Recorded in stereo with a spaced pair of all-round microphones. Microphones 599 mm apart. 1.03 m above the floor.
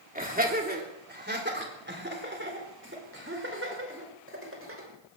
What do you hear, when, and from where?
0.1 s laughter: 15° right (ahead or behind), 3 m; by 4.9 s 20° right (ahead or behind), 5.5 m